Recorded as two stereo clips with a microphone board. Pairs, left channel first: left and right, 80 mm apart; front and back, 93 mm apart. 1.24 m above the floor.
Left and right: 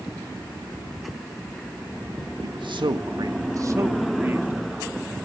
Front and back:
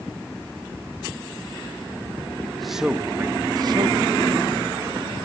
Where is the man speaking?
80° right, 1.5 m; by 5.2 s 165° right, 3.5 m.